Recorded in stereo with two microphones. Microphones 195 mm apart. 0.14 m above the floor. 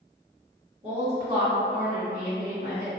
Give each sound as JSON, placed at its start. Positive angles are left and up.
{"t": 0.8, "sound": "a woman speaking", "side_deg": -35, "distance_m": 1.9}